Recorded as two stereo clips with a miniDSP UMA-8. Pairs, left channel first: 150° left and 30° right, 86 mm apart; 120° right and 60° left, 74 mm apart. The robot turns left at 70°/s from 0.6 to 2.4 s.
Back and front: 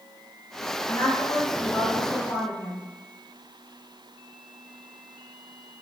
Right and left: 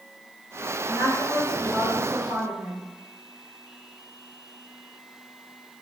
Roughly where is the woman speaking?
Behind right.